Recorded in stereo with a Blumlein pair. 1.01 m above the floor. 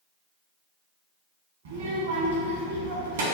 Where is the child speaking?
60° right, 0.9 m.